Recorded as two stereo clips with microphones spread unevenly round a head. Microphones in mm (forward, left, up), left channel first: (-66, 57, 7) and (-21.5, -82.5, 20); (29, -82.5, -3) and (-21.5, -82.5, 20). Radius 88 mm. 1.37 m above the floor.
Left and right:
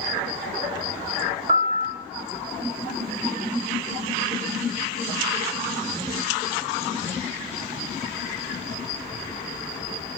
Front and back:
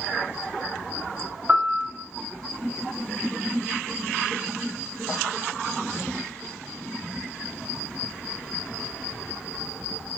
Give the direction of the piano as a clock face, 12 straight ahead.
4 o'clock.